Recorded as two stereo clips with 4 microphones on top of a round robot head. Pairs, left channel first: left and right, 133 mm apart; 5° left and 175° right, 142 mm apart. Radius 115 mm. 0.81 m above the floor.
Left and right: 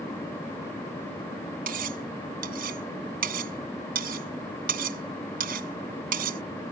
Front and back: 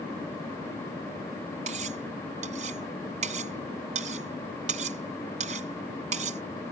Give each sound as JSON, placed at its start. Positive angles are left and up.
{"t": 1.7, "sound": "cutlery clinking", "azimuth_deg": -125}